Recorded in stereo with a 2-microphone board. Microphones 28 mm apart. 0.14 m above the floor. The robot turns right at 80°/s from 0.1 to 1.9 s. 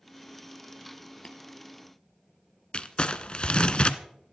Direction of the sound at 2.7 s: 40° left (ahead or behind).